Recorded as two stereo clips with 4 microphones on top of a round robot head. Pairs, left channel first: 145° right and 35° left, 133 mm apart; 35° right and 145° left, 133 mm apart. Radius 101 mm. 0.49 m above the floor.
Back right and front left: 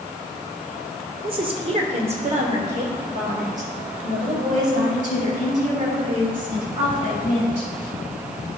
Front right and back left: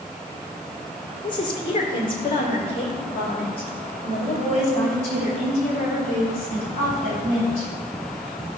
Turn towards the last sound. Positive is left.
turn(degrees=10)